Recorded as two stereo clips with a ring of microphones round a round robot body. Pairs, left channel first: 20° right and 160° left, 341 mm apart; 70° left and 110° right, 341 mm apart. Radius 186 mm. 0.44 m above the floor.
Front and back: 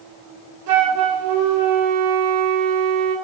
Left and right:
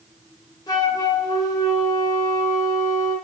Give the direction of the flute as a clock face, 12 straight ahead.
7 o'clock.